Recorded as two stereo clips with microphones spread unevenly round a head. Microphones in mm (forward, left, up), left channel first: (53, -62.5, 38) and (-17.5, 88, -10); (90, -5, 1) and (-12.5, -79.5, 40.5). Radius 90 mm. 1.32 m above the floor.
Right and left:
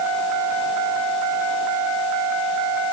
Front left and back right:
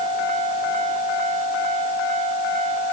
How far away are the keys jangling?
No keys jangling in this recording.